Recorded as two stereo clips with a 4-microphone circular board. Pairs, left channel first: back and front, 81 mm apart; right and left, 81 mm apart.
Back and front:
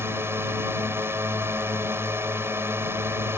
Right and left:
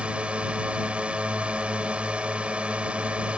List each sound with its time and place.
0.0 s a drone: 25° left